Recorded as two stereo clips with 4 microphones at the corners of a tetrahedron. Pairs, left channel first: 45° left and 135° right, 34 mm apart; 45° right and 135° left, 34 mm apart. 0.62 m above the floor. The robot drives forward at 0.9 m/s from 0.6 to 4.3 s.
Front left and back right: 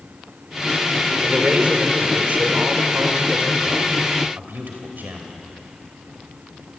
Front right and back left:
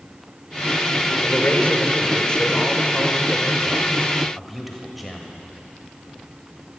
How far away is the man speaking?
About 2.5 m.